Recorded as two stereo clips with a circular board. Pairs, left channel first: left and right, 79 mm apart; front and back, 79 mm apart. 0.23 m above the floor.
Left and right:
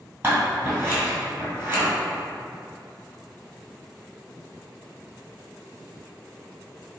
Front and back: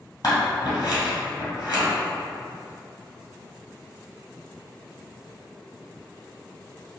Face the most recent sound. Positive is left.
turn(degrees=-35)